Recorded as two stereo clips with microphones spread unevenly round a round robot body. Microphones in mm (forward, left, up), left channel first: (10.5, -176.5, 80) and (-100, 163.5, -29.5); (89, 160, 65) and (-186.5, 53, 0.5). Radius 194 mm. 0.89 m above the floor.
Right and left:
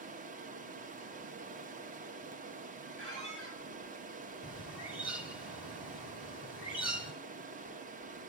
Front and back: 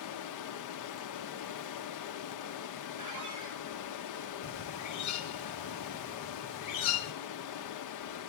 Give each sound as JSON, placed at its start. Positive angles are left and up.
{"t": 0.0, "sound": "running water", "azimuth_deg": 50, "distance_m": 0.8}
{"t": 3.0, "sound": "a squeak", "azimuth_deg": 175, "distance_m": 5.5}
{"t": 4.4, "sound": "a bird", "azimuth_deg": 10, "distance_m": 0.9}